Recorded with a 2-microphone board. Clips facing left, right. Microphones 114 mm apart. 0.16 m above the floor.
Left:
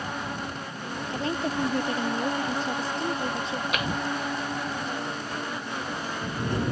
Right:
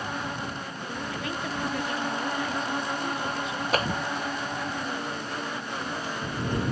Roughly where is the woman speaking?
Left.